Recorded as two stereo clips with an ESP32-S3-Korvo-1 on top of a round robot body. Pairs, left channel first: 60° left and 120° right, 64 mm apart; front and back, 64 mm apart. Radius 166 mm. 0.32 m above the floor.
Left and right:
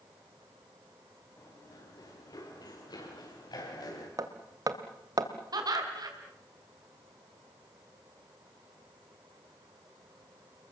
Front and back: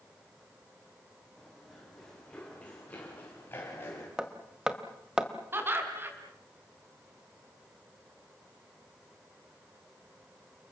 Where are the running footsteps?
90° left, 6 m; by 4.1 s 55° left, 7.5 m.